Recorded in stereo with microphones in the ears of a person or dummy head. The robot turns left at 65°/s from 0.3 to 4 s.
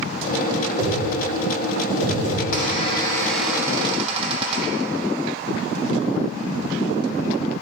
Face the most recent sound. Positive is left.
turn(degrees=-40)